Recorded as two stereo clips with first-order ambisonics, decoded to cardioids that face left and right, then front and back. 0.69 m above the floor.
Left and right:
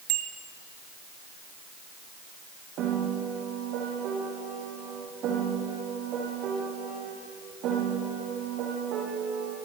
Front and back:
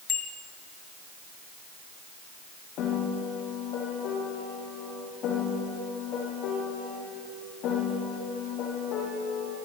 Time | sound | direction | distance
0.1 | a bicycle bell | 60° right | 3.5 m
2.8 | a piano | 45° right | 7.5 m